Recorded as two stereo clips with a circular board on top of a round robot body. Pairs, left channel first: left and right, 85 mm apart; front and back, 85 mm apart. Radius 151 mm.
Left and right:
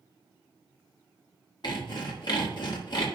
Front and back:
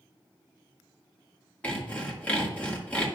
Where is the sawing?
70° left, 2 m.